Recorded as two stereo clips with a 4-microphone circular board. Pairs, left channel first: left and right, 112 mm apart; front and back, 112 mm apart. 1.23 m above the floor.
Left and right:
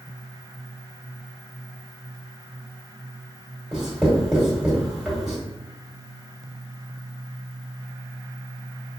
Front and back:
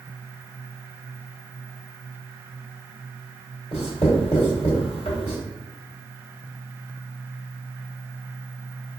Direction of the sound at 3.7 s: 5° right.